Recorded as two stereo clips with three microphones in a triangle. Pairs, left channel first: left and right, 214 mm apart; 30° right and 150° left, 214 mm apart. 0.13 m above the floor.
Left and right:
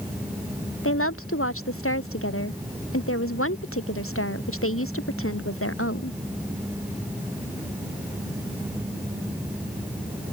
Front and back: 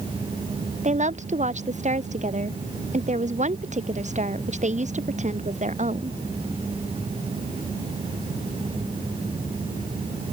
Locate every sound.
0.8 s a woman speaking: 95° left